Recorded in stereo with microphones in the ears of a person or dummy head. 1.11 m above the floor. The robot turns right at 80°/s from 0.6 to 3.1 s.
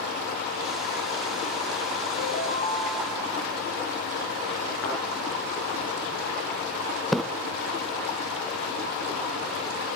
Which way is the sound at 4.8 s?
65° left (ahead or behind).